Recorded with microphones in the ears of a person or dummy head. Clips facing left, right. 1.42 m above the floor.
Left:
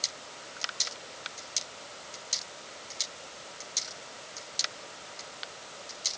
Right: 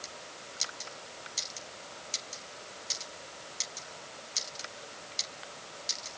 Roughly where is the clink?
I don't hear a clink.